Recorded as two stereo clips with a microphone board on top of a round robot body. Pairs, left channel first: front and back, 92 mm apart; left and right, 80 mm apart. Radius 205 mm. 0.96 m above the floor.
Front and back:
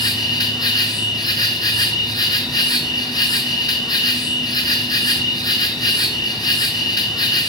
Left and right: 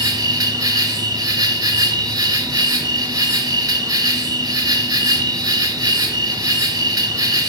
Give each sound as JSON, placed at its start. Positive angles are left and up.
{"t": 0.0, "sound": "an insect", "azimuth_deg": -45, "distance_m": 3.0}